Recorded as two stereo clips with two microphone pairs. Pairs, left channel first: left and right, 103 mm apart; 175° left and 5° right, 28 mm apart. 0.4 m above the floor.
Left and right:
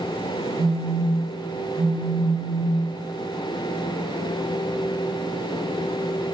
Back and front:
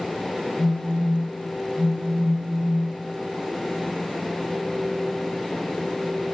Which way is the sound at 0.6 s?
Straight ahead.